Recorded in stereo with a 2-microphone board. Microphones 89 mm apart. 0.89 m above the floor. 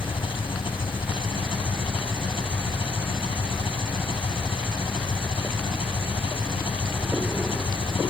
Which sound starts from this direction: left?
An engine running, at 0.0 s.